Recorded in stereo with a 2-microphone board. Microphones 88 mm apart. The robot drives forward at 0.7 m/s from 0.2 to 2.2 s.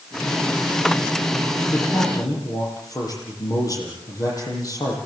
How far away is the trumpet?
I don't hear a trumpet.